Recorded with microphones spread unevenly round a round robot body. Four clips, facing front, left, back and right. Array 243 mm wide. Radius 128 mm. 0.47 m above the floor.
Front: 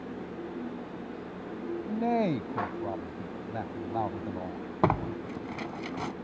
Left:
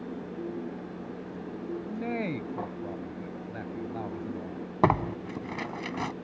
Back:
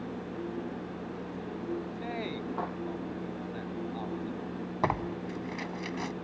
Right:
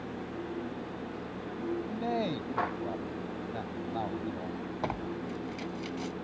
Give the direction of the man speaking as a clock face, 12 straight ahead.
12 o'clock.